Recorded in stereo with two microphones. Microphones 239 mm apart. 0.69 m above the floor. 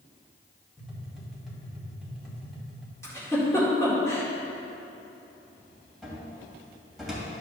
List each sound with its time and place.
0.8 s tapping: centre (ahead or behind), 2 m
3.0 s a giggle: 10° left (ahead or behind), 2.0 m
6.0 s a cupboard door: centre (ahead or behind), 2.5 m